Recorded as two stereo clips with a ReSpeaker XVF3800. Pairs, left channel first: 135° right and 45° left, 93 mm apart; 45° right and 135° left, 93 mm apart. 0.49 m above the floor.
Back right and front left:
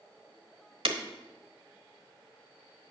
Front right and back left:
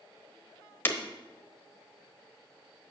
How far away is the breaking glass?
About 1.0 m.